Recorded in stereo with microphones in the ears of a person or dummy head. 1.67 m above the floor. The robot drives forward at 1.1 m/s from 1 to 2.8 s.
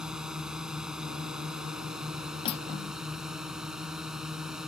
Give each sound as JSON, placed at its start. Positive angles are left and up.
{"t": 0.0, "sound": "a drone", "side_deg": -5}
{"t": 2.5, "sound": "cutlery clinking", "side_deg": 35}